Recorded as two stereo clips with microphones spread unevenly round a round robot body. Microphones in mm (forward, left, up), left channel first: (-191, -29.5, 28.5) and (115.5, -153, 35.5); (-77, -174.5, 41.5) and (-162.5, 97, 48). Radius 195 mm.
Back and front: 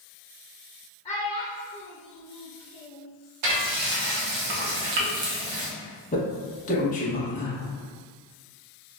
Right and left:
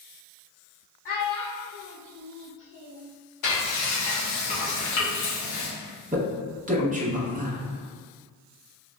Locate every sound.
1.1 s a child speaking: 125° right, 0.8 m; by 3.1 s 55° right, 1.9 m
3.4 s frying: 30° right, 1.0 m
6.1 s a man speaking: 130° left, 0.9 m